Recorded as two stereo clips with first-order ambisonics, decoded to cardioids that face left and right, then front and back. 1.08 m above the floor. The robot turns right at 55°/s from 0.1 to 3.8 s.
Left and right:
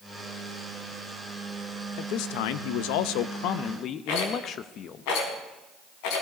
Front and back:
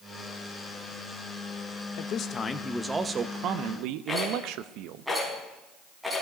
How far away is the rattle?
About 4 m.